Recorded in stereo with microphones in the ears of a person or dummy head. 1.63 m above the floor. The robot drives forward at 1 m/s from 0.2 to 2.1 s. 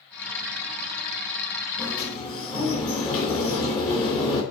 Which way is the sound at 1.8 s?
20° left (ahead or behind).